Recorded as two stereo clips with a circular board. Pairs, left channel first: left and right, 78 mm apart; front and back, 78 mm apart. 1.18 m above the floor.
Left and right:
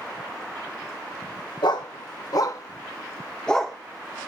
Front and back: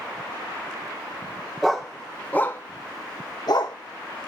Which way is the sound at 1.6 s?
95° left.